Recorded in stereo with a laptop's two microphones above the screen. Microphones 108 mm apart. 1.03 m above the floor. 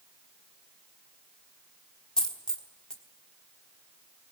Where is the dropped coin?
5° left (ahead or behind), 1.2 m.